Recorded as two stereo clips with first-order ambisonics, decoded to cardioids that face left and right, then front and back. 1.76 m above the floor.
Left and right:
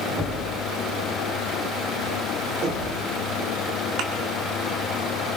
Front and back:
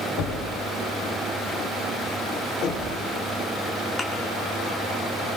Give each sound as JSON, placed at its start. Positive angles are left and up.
{"t": 0.2, "sound": "knocking", "azimuth_deg": -25, "distance_m": 4.5}
{"t": 2.6, "sound": "knocking", "azimuth_deg": -50, "distance_m": 4.5}
{"t": 4.0, "sound": "a thud", "azimuth_deg": -80, "distance_m": 2.0}